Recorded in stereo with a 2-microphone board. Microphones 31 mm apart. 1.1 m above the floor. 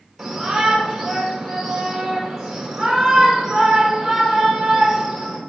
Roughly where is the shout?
Centre.